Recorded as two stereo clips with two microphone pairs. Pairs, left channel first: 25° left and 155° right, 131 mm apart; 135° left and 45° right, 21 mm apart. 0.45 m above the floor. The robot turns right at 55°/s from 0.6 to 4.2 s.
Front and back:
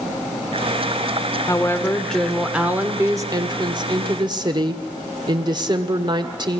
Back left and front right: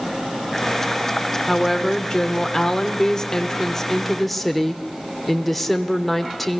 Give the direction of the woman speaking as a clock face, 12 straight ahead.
10 o'clock.